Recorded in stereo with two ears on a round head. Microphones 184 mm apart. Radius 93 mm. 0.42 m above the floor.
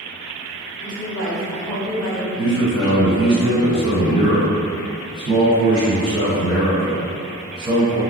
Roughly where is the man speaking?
Right.